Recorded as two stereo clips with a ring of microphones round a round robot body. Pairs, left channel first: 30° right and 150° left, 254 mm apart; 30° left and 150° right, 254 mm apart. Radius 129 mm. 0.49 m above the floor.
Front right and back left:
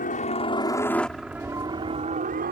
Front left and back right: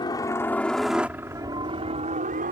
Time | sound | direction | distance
0.0 | a helicopter | 30° right | ?